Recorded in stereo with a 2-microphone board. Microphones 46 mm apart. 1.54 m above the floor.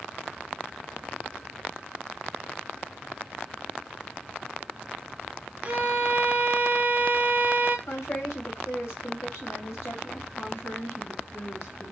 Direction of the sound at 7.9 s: 70° left (ahead or behind).